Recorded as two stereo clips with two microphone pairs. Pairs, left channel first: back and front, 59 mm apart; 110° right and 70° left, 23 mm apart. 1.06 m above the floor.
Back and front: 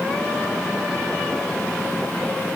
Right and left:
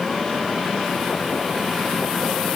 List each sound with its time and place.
Only background noise.